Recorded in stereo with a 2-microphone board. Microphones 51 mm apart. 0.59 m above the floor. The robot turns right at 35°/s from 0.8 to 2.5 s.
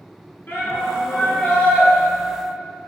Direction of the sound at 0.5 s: 120° left.